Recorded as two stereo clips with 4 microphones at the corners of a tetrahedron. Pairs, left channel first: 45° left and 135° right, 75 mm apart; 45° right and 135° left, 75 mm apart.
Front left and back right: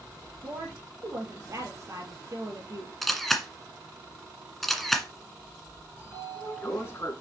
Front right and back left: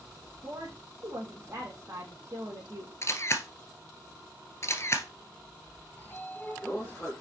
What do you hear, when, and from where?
0.4 s a woman speaking: 175° right, 3.5 m
3.0 s a camera shutter: 40° right, 1.5 m
6.0 s a sliding door: 15° left, 2 m